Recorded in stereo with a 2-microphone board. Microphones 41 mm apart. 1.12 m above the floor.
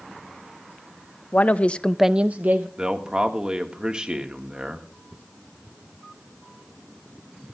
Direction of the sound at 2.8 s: 25° right (ahead or behind).